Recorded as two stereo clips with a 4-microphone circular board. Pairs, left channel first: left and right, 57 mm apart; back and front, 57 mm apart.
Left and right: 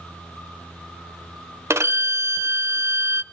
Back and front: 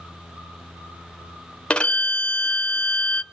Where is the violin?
115° right, 0.5 m.